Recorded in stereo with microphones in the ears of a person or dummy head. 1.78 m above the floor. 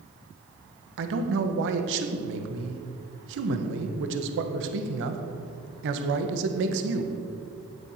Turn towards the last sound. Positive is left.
turn(degrees=-75)  # may be behind; listen again after turning